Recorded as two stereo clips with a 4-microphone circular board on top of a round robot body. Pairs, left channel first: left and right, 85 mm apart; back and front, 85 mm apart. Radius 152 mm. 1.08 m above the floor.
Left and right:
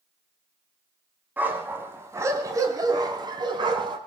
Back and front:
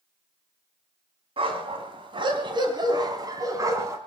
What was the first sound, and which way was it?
A dog barking, 20° right.